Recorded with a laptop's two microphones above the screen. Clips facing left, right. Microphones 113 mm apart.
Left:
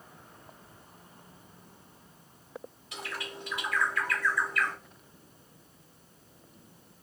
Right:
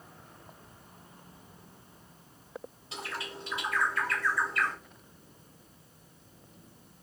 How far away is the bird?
About 1.1 m.